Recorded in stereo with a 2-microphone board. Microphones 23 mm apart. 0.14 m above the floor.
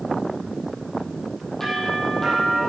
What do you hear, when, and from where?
1.6 s a doorbell: 10° left (ahead or behind), 7 m